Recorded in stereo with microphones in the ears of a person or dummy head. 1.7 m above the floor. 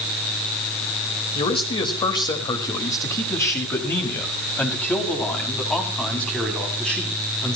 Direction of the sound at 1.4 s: 40° left (ahead or behind).